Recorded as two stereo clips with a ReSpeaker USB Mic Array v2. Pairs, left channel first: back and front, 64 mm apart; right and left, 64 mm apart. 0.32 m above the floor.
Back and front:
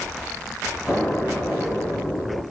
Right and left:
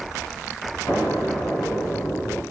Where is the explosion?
115° right, 1.8 m.